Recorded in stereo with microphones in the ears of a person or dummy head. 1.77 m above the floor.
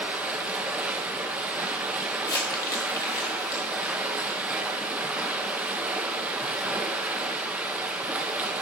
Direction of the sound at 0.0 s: 10° right (ahead or behind).